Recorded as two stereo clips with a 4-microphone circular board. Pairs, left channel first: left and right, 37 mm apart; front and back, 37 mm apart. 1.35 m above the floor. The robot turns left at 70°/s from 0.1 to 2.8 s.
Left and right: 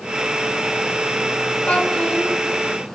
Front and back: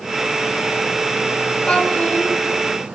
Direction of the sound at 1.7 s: 50° left.